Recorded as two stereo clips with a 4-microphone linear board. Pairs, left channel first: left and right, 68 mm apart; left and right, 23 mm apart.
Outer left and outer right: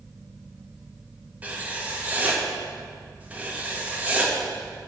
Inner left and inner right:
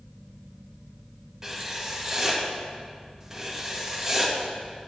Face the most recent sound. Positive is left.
turn(degrees=-20)  # may be behind; listen again after turning